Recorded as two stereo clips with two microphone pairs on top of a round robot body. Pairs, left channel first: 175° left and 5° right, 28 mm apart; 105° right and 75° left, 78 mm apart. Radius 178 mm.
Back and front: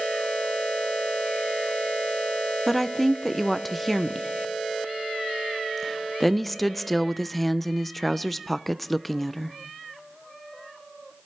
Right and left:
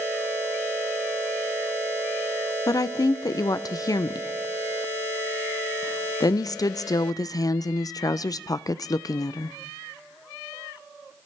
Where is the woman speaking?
105° right, 0.5 m.